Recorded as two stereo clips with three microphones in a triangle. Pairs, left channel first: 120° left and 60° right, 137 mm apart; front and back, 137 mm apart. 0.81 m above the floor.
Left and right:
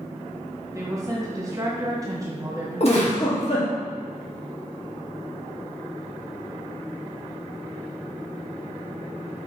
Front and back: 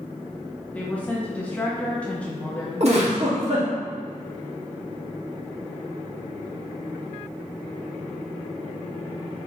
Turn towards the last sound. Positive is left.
turn(degrees=155)